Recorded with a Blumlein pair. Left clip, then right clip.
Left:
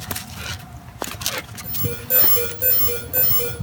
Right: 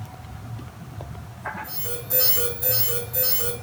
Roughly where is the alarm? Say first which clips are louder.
Left 4 dB; left.